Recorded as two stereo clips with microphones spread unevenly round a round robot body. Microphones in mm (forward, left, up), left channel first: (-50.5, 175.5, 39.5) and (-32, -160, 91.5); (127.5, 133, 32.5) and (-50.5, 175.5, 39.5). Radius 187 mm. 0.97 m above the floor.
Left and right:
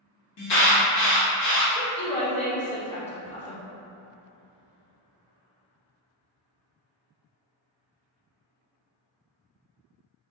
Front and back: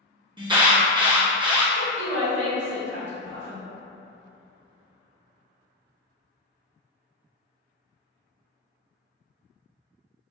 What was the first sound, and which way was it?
An alarm, 100° left.